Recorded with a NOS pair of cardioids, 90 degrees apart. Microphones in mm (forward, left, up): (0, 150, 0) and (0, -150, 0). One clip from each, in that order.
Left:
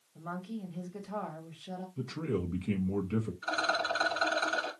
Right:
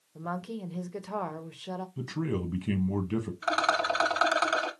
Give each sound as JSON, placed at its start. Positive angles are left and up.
{"t": 0.1, "sound": "a woman speaking", "azimuth_deg": -60, "distance_m": 1.4}
{"t": 2.0, "sound": "a man speaking", "azimuth_deg": -40, "distance_m": 1.3}
{"t": 3.4, "sound": "a rattle", "azimuth_deg": -60, "distance_m": 2.0}